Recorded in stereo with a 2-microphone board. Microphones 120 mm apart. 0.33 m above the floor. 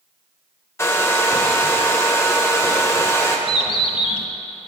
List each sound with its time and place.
0.8 s a hair dryer: 20° left (ahead or behind), 0.6 m
3.5 s a bird: 45° left (ahead or behind), 0.6 m